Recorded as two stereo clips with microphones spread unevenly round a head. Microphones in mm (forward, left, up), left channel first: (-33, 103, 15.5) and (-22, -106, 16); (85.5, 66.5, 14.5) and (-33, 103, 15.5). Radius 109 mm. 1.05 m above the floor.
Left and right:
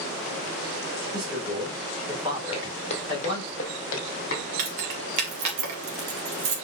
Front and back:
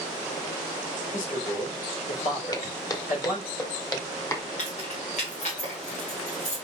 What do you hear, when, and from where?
1.1 s a man speaking: 20° right, 4 m
2.5 s footsteps: 35° left, 1.5 m; by 4.5 s 45° left, 3 m
4.6 s keys jangling: 75° right, 2 m